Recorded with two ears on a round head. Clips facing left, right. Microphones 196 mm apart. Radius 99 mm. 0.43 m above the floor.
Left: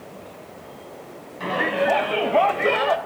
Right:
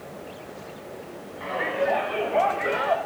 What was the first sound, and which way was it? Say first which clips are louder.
A shout: left 3 dB; 55° left (ahead or behind).